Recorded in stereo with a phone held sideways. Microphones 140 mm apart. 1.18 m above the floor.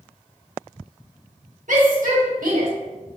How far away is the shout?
About 1.8 m.